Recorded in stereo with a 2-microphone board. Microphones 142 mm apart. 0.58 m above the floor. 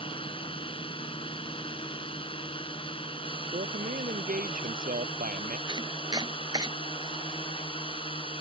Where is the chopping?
30° right (ahead or behind).